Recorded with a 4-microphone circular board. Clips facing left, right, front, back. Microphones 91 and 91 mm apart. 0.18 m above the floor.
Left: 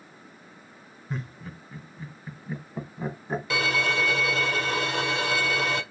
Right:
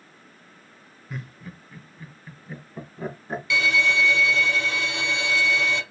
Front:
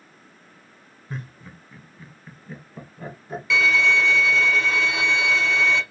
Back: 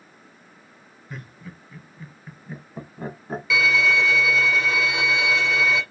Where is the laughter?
45° left, 1.5 m; by 3.4 s 175° left, 1.4 m.